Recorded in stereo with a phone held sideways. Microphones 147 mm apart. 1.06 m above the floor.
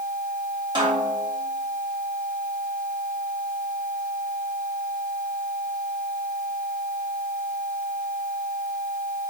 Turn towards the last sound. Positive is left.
turn(degrees=-35)  # may be behind; listen again after turning